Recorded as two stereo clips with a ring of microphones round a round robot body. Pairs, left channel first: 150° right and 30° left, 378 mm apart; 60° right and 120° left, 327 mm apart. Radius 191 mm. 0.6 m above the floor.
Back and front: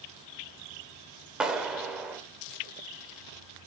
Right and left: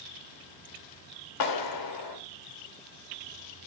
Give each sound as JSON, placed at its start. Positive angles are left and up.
{"t": 1.4, "sound": "a clap", "azimuth_deg": -60, "distance_m": 2.0}